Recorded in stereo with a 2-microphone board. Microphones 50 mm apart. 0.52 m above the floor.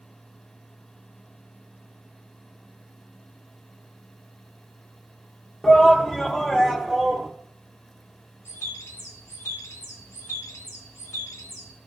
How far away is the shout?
About 0.9 m.